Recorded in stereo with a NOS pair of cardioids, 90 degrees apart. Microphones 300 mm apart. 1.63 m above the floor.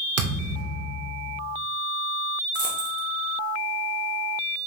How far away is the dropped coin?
About 3 m.